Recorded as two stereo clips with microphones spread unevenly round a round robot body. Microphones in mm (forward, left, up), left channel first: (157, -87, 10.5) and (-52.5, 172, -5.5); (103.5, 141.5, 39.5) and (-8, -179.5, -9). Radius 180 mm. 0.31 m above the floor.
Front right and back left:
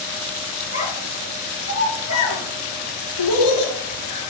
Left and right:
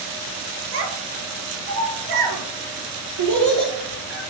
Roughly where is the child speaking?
Behind right.